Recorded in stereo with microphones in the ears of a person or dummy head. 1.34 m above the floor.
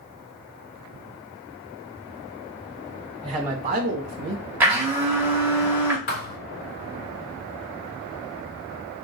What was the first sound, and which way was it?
A man speaking, 5° left (ahead or behind).